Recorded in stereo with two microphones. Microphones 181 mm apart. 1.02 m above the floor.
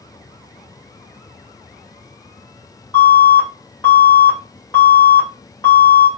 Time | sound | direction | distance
2.9 | an alarm | 25° left (ahead or behind) | 2.0 m